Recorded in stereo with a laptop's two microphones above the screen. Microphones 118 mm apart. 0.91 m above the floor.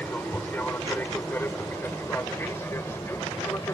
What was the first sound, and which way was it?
An aircraft, 15° left (ahead or behind).